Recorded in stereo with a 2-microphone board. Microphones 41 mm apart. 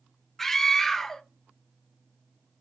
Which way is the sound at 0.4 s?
10° left (ahead or behind).